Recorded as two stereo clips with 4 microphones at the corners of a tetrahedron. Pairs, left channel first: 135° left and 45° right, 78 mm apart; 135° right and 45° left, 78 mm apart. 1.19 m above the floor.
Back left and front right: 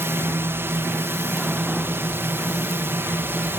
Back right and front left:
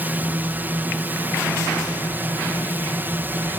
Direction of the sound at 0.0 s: 5° right.